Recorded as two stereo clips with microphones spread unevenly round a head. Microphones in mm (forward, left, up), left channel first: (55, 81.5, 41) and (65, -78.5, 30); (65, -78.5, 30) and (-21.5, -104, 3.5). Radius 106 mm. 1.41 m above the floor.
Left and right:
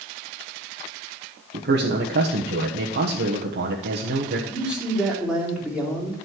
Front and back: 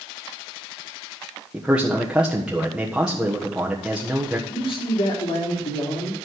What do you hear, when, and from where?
1.5 s a man speaking: 85° right, 1.3 m
4.5 s a man speaking: straight ahead, 3.5 m